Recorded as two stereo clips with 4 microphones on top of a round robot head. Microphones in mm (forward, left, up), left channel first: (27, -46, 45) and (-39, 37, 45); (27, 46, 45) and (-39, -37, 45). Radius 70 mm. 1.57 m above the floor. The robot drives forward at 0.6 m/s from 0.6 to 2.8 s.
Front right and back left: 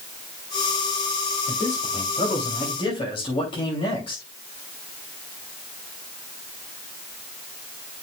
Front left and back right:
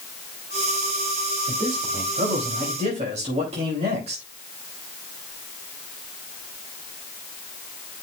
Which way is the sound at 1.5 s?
80° right.